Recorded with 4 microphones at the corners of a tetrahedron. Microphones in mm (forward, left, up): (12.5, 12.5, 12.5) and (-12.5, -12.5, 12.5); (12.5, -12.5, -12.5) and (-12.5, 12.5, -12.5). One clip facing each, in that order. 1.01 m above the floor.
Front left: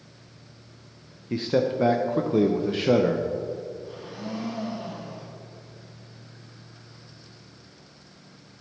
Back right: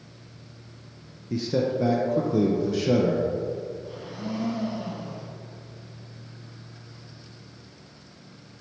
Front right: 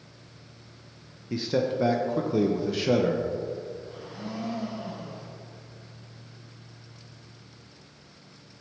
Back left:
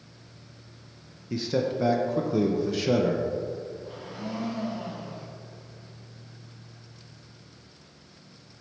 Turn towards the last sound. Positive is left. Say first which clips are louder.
# back right 1 dB, back left 2 dB
turn(degrees=135)